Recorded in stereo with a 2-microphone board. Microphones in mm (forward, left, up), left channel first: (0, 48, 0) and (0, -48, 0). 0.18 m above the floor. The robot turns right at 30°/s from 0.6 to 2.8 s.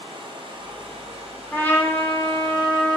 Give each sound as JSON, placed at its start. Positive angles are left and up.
{"t": 0.0, "sound": "running water", "azimuth_deg": -115, "distance_m": 1.2}
{"t": 1.5, "sound": "a trumpet", "side_deg": 20, "distance_m": 0.8}